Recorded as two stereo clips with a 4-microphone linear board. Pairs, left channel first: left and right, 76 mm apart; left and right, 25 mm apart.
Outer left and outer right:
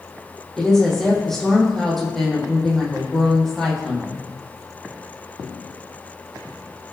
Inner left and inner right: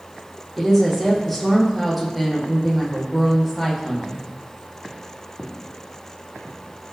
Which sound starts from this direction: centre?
A woman speaking, at 0.6 s.